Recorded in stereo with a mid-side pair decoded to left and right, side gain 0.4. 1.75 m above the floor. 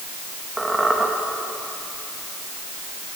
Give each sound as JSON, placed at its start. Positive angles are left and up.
{"t": 0.6, "sound": "a squeak", "azimuth_deg": -20, "distance_m": 2.0}